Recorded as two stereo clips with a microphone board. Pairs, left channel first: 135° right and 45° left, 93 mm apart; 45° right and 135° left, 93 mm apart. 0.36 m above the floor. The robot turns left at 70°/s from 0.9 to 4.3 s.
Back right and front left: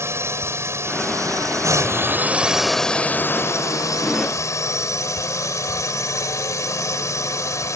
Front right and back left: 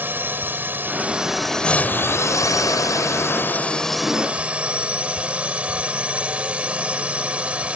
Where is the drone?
80° left; by 7.8 s 155° right.